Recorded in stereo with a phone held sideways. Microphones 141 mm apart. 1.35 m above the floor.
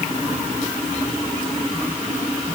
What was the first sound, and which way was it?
Only background noise.